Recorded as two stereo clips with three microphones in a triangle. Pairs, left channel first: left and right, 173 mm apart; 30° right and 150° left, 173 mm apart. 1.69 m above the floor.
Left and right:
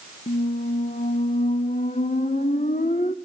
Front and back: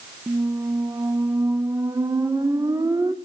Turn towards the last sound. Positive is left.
turn(degrees=90)